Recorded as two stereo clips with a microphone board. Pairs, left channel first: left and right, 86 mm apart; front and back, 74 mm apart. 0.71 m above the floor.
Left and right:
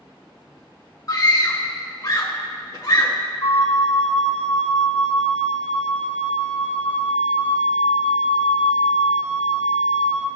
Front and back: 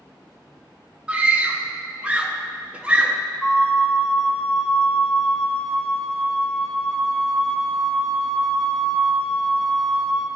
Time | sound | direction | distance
1.1 | a scream | 110° left | 0.8 m
3.4 | a flute | 75° left | 1.1 m